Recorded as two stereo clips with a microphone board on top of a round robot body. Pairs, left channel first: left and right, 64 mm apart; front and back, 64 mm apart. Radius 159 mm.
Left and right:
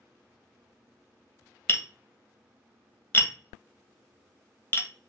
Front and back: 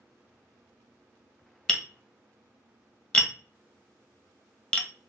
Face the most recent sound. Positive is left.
turn(degrees=70)